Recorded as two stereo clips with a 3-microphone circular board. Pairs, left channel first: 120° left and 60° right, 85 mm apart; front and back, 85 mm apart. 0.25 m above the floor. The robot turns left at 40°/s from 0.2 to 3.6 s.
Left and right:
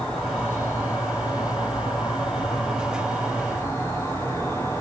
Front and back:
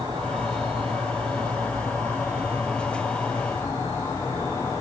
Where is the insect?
160° right, 6.5 m; by 4.8 s 60° left, 6.5 m.